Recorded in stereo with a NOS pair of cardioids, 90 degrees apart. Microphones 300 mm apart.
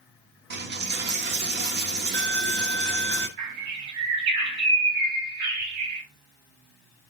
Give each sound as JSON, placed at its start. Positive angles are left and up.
{"t": 0.5, "sound": "a dropped coin", "azimuth_deg": -35, "distance_m": 1.1}
{"t": 3.4, "sound": "a bird", "azimuth_deg": -65, "distance_m": 2.5}